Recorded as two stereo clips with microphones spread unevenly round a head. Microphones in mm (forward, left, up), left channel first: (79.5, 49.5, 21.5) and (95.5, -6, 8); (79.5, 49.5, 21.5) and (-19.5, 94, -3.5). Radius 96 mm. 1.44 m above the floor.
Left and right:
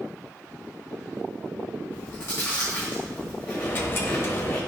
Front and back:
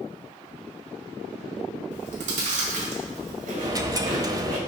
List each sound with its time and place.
1.9 s chewing: straight behind, 1.7 m
3.6 s a dropped coin: 95° left, 1.0 m